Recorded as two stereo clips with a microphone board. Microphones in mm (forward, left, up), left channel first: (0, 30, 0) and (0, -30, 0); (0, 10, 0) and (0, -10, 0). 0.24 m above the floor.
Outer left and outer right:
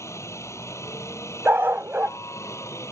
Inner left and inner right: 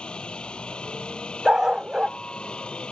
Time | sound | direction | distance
0.0 | a helicopter | 55° left (ahead or behind) | ?
1.4 | a dog barking | 40° right (ahead or behind) | ?